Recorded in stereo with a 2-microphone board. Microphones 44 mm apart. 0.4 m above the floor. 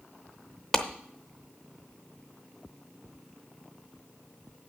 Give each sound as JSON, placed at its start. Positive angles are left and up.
{"t": 0.7, "sound": "a clap", "side_deg": 5, "distance_m": 0.7}